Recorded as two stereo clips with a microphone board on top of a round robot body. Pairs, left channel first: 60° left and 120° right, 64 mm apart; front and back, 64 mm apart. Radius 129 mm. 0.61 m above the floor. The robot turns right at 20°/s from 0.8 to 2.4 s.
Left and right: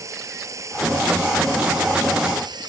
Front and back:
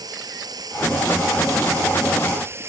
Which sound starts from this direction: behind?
Running water, at 0.0 s.